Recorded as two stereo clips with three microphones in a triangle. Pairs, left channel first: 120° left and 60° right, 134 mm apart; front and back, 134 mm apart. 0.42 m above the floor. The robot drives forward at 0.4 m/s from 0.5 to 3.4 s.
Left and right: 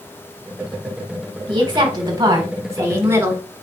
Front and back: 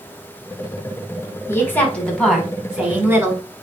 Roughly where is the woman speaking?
Ahead right.